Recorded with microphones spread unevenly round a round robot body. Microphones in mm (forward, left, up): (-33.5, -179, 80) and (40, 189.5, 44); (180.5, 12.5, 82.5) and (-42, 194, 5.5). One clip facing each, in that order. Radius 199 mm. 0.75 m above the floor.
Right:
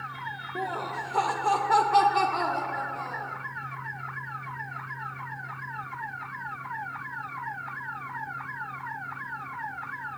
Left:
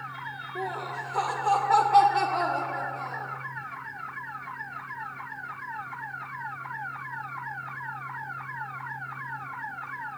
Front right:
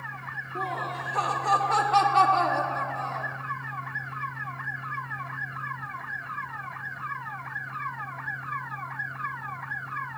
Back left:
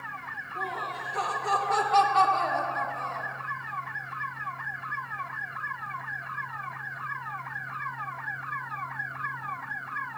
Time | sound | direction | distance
0.6 | laughter | 95° right | 1.1 m